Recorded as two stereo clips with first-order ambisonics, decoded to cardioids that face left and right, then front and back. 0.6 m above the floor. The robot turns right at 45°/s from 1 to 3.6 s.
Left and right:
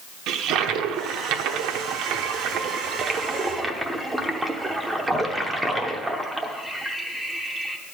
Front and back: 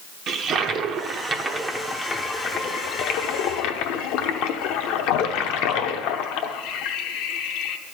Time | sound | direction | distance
0.3 | a toilet flushing | 125° right | 0.8 m